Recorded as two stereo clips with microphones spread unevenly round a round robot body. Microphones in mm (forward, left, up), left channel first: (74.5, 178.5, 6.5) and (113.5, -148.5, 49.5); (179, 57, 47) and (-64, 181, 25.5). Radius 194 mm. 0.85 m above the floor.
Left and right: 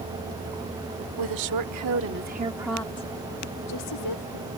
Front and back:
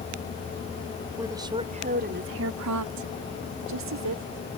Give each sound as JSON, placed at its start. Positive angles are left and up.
{"t": 1.2, "sound": "a woman speaking", "azimuth_deg": -125}